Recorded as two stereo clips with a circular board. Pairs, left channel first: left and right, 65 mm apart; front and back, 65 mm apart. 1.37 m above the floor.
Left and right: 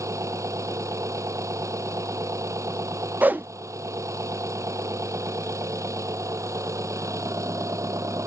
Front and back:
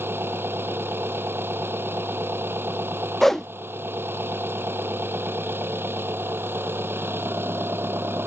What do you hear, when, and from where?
0.0 s an engine running: 125° right
3.2 s a whoosh: 80° right